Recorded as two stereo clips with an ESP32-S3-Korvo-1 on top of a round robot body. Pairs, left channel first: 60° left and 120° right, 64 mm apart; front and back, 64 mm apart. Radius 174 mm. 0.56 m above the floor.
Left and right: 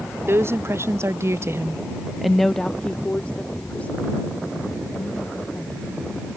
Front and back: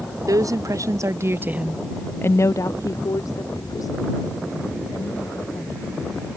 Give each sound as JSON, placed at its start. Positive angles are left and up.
{"t": 0.3, "sound": "a woman speaking", "azimuth_deg": -165}